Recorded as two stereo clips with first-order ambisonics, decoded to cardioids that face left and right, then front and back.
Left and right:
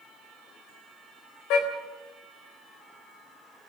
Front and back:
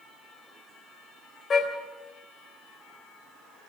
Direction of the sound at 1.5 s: 65° left.